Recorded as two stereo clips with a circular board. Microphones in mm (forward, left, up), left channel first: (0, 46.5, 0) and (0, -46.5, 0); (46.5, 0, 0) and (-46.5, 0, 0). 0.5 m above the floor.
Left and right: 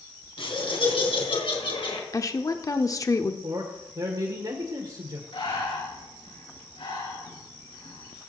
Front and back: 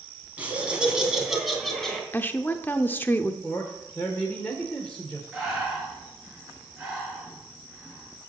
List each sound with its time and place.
0.4 s laughter: 105° left, 3.5 m; by 2.0 s 85° left, 3.5 m
2.1 s a woman speaking: 60° left, 0.9 m
3.4 s a man speaking: 75° right, 1.7 m
5.3 s breathing: 95° left, 6 m